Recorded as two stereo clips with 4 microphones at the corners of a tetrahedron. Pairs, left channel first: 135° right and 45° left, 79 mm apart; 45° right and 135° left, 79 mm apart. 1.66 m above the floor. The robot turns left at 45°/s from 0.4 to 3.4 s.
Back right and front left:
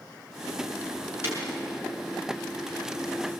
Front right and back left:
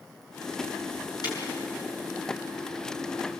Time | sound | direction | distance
1.2 | breaking glass | 15° right | 7 m